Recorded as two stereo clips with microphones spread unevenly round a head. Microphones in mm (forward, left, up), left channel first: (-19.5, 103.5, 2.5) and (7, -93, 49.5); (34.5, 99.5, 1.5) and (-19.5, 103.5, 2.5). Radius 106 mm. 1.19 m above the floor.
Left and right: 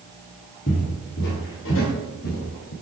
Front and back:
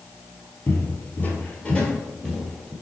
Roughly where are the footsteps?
Ahead left.